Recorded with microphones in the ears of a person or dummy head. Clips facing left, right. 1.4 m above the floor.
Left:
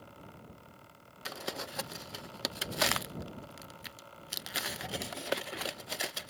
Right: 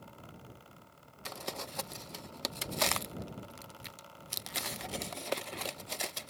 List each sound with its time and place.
1.2 s crumpling: 10° left (ahead or behind)